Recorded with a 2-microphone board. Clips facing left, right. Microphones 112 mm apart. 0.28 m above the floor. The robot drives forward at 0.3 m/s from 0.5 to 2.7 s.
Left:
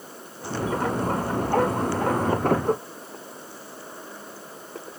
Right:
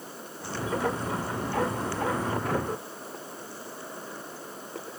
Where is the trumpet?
No trumpet in this recording.